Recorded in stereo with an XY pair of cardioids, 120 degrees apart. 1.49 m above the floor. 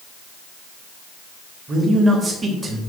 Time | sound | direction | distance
1.7 | a man speaking | 20° right | 3 m